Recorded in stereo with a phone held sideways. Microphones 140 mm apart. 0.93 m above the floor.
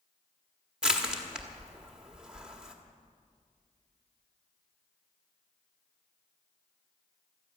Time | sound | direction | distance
0.8 | crushing | 5° right (ahead or behind) | 1.6 m